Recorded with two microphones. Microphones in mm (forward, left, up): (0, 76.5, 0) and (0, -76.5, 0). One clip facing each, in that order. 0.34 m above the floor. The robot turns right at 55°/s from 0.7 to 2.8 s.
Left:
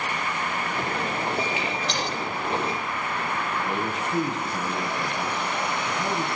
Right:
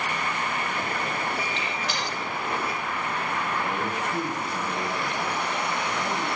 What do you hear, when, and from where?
1.6 s a gunshot: 10° left (ahead or behind), 7.5 m; by 2.0 s 10° right (ahead or behind), 7.5 m
3.7 s a man speaking: 25° left (ahead or behind), 4 m